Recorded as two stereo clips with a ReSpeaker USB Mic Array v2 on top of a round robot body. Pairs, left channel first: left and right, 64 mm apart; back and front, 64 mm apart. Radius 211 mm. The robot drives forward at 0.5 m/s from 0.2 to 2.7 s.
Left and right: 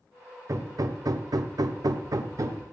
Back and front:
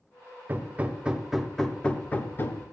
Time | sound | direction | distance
0.5 | hammering | 55° right | 0.9 m